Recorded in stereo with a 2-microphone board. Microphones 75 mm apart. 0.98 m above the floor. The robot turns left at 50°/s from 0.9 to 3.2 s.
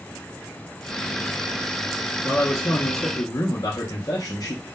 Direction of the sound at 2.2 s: 140° left.